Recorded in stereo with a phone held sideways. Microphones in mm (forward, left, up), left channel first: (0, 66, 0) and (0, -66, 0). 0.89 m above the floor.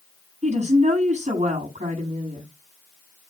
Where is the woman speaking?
65° right (ahead or behind), 9 m.